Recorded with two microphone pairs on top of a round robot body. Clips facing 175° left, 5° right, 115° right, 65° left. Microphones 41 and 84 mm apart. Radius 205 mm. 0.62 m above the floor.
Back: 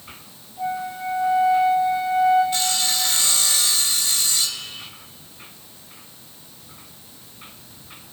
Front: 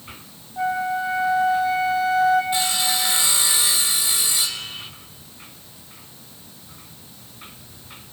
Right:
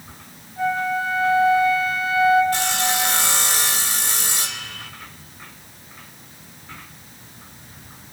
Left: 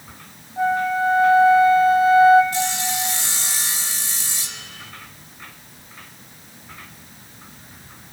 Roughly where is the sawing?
Right.